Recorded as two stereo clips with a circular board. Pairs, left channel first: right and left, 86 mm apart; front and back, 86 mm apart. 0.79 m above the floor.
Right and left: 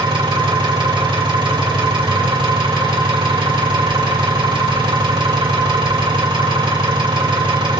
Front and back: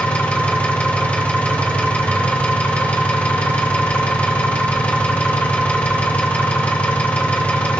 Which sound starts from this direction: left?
An engine running, at 0.0 s.